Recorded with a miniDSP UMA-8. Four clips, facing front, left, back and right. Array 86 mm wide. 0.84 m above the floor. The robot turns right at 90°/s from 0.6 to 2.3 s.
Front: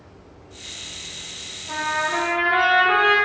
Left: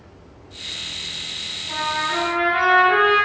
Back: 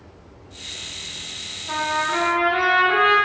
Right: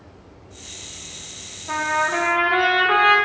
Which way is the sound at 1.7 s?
115° right.